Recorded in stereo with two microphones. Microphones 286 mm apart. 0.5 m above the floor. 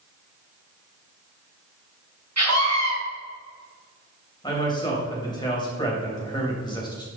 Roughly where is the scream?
Right.